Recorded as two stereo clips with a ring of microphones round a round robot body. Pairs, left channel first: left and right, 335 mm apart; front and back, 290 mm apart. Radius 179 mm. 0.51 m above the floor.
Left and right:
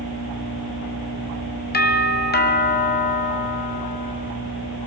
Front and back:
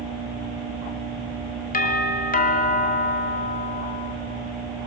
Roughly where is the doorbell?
Ahead left.